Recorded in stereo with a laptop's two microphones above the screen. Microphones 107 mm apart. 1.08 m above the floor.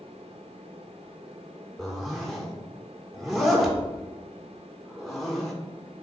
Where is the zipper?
Centre (ahead or behind), 1.7 m.